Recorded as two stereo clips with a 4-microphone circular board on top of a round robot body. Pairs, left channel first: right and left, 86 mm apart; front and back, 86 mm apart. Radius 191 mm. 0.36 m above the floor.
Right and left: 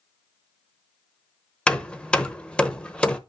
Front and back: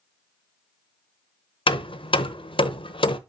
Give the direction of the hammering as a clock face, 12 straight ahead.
12 o'clock.